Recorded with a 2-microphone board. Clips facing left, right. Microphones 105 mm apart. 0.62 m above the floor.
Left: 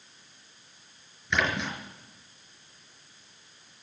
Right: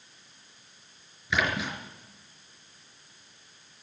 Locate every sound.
1.3 s a splash: 5° right (ahead or behind), 4.5 m